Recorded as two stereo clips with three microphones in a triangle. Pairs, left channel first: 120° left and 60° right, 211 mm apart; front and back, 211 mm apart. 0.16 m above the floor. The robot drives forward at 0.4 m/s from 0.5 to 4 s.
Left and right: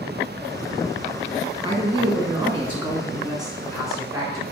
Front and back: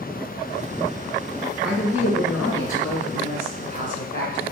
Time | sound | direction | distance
1.6 | a man speaking | 110° right | 1.8 m